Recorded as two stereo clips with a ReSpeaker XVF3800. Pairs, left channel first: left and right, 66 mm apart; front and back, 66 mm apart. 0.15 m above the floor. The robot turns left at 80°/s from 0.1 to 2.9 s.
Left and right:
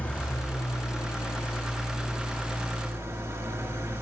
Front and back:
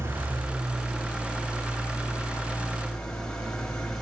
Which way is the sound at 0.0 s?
150° left.